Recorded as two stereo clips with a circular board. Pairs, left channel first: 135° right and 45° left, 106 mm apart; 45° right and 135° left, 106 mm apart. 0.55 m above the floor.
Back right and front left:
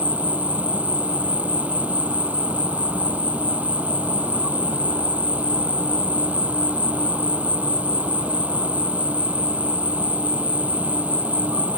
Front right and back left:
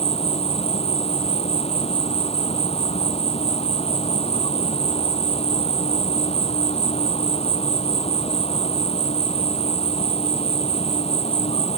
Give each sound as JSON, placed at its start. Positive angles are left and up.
{"t": 0.0, "sound": "an insect", "azimuth_deg": -30}